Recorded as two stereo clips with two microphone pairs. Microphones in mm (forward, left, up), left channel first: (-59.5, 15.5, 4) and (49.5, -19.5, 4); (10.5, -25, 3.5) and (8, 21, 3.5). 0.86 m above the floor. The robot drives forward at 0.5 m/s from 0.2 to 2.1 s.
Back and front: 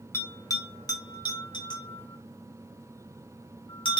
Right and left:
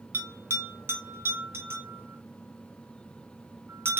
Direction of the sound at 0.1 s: 100° left.